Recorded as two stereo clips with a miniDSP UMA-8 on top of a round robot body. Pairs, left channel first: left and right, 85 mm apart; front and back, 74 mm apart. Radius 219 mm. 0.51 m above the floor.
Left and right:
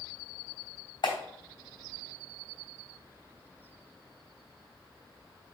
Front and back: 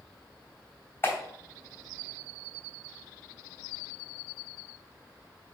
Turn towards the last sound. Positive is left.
turn(degrees=60)